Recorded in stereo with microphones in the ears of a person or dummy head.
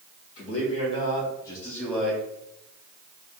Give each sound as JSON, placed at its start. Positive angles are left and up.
{"t": 0.4, "sound": "a man speaking", "side_deg": 40, "distance_m": 1.6}